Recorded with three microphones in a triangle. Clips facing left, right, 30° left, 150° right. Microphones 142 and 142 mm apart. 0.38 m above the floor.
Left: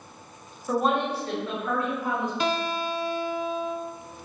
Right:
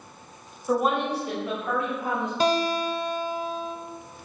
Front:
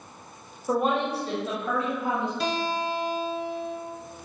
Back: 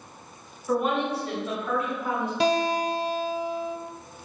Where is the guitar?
145° right, 0.5 m.